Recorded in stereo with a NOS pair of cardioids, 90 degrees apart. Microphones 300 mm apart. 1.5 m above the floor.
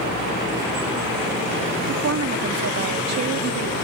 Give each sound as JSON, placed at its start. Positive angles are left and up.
{"t": 1.9, "sound": "a woman speaking", "azimuth_deg": -55}